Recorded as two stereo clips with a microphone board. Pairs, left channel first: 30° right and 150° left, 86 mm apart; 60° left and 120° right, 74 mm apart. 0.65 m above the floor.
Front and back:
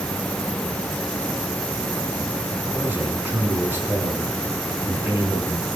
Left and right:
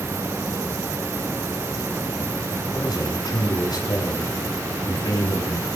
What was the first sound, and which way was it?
A man speaking, 80° left.